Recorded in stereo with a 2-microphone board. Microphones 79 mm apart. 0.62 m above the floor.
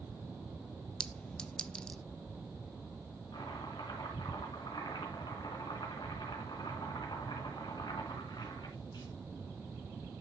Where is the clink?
10° left (ahead or behind), 0.5 m.